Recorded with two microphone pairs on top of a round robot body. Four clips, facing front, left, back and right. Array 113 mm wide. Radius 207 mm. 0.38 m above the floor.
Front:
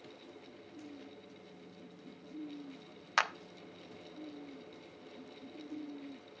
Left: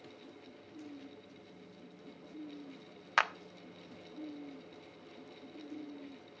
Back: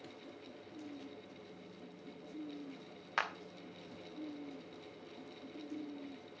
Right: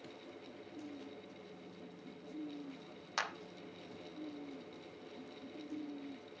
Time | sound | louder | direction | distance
3.2 | a clap | left 9 dB, front 5 dB | 60° left | 1.2 m